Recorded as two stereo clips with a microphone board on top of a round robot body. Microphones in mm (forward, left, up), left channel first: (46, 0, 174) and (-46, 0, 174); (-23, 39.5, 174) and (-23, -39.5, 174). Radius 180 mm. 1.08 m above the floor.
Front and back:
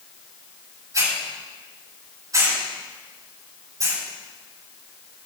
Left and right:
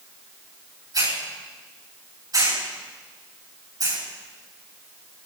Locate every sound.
0.9 s a hiss: 130° right, 8 m